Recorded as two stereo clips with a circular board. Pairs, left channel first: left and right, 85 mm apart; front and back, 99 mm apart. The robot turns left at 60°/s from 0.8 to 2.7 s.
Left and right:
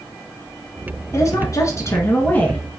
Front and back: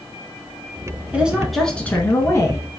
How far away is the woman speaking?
About 1.3 m.